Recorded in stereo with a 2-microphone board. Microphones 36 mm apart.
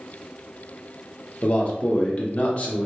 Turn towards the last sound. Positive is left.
turn(degrees=40)  # may be behind; listen again after turning